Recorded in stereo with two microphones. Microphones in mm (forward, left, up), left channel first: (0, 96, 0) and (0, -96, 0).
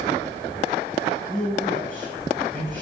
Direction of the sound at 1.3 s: 85° right.